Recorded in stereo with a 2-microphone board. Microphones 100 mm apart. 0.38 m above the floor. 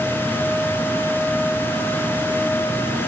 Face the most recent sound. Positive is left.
No sound to turn to.